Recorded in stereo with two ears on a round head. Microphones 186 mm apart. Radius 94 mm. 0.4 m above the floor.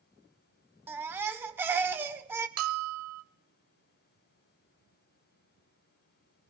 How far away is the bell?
About 0.9 m.